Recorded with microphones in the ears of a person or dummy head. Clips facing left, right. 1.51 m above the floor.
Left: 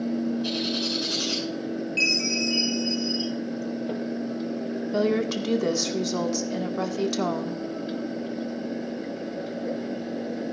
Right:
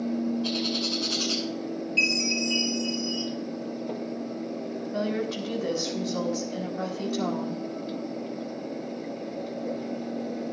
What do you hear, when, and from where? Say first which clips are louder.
0.4 s a bird: left 1 dB; 15° left (ahead or behind), 5.5 m
2.0 s a chime: left 1 dB; 20° right (ahead or behind), 4.5 m
4.9 s a woman speaking: left 5 dB; 65° left (ahead or behind), 1.8 m